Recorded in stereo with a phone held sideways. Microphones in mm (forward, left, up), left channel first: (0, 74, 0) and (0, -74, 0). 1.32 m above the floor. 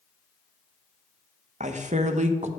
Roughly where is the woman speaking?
Right.